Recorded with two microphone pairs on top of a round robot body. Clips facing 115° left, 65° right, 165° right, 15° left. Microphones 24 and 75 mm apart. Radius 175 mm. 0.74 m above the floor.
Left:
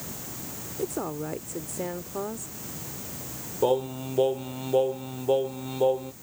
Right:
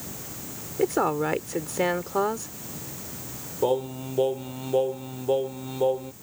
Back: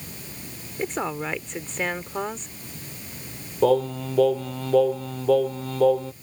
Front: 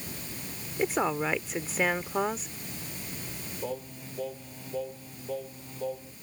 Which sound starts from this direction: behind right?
Singing, at 3.6 s.